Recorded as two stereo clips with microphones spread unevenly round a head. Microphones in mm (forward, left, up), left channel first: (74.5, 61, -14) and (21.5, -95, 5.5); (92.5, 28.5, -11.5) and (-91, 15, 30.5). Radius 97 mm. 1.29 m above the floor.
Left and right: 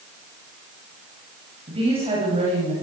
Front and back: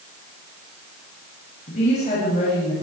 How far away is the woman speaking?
About 9 m.